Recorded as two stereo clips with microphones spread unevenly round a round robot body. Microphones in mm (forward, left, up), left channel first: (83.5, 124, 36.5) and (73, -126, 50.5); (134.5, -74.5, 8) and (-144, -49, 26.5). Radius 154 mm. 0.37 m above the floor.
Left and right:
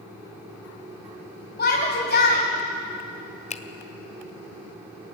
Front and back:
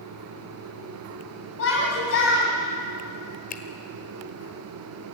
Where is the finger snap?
40° left, 1.4 m.